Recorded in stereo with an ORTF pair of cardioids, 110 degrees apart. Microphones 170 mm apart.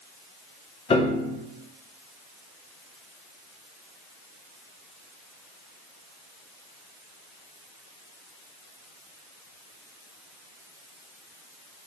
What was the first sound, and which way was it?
A piano, 35° left.